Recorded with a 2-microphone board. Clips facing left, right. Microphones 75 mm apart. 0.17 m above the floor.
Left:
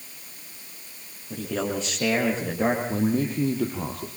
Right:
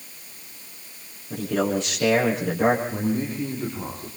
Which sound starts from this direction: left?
A man speaking, at 2.9 s.